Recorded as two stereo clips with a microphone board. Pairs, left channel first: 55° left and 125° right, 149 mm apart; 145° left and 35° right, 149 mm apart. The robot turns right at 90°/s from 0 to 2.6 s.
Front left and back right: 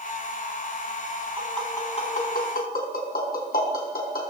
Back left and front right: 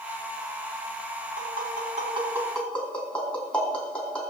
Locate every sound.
1.4 s tapping: 50° right, 4.5 m; by 4.3 s 60° left, 4.5 m